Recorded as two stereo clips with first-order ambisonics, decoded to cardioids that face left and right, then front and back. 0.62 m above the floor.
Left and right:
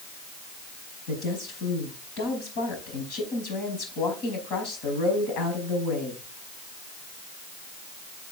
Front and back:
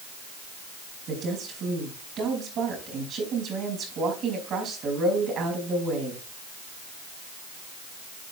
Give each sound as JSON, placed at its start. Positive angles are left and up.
{"t": 1.1, "sound": "a woman speaking", "azimuth_deg": 125, "distance_m": 4.5}